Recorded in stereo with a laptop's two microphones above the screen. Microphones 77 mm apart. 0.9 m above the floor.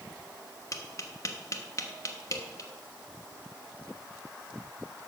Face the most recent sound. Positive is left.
turn(degrees=45)  # may be behind; listen again after turning